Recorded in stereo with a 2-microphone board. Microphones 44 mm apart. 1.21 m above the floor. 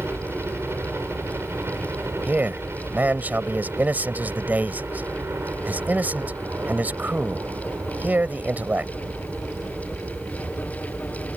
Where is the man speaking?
40° right (ahead or behind).